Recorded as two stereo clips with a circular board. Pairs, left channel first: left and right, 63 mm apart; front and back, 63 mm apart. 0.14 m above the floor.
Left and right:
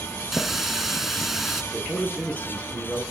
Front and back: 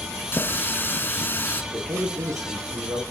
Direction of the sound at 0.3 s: 5° right.